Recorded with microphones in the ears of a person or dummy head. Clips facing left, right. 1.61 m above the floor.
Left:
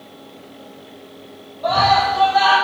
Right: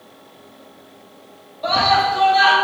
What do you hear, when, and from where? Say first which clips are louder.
1.6 s a scream: left 2 dB; 30° right (ahead or behind), 2.5 m